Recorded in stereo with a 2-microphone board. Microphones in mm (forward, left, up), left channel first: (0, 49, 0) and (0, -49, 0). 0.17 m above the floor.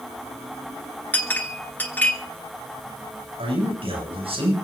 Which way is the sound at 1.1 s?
20° left (ahead or behind).